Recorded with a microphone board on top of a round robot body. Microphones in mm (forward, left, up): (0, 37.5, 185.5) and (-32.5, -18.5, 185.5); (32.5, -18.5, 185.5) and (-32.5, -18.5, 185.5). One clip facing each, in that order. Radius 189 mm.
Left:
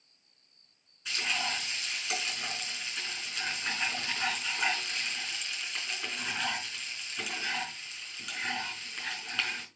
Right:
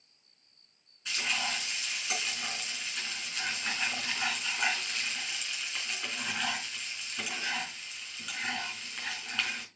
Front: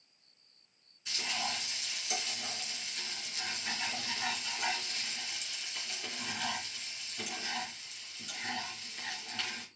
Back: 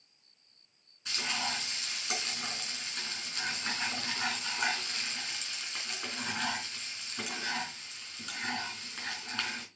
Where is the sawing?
No sawing in this recording.